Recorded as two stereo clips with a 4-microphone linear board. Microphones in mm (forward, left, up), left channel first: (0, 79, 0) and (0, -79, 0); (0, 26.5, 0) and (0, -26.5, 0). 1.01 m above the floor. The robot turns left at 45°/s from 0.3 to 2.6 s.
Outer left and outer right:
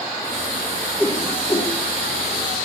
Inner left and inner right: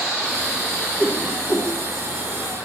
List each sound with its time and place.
1.0 s a whoosh: 5° right (ahead or behind), 2 m; by 1.7 s 25° left (ahead or behind), 2 m